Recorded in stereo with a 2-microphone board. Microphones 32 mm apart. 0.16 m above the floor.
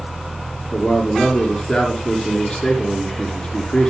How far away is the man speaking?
About 3 m.